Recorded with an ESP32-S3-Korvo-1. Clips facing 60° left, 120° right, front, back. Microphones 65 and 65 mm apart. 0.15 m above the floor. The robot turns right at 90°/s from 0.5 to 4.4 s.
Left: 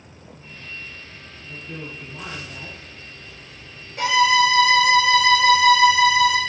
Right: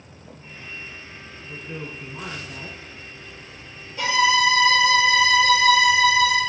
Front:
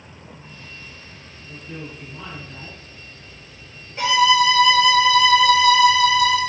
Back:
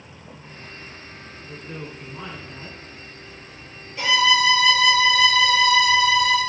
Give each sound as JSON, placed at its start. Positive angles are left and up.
{"t": 1.4, "sound": "a woman speaking", "azimuth_deg": 165, "distance_m": 1.2}
{"t": 4.0, "sound": "a violin", "azimuth_deg": 55, "distance_m": 1.2}